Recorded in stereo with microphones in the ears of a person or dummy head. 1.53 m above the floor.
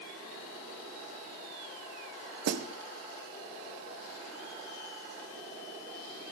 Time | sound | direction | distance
2.5 | a snare drum | 60° right (ahead or behind) | 0.8 m